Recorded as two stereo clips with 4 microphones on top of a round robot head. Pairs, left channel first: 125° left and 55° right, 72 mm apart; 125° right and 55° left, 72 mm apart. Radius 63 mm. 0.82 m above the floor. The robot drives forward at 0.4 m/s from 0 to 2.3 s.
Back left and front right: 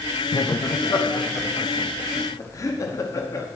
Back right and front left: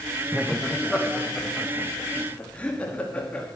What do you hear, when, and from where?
0.3 s laughter: 135° left, 0.6 m; by 3.5 s 165° left, 1.2 m